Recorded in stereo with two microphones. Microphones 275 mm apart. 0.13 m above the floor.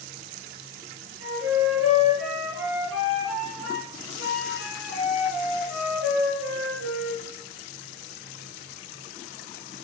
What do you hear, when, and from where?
1.2 s a flute: 55° right (ahead or behind), 2.5 m